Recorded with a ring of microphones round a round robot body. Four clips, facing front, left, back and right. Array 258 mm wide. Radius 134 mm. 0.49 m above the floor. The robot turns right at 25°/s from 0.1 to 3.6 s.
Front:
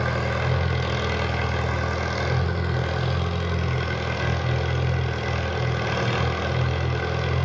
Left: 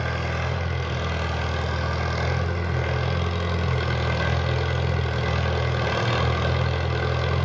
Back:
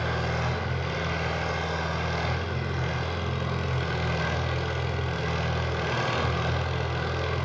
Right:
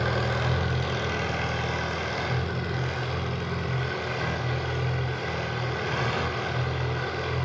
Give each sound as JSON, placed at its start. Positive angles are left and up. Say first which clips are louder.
{"t": 0.0, "sound": "an engine running", "louder": "right 1 dB, front 3 dB", "azimuth_deg": -20, "distance_m": 1.6}